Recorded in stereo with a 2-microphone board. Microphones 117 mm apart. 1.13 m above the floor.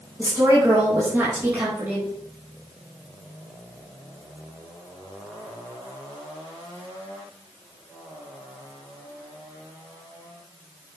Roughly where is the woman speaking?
Right.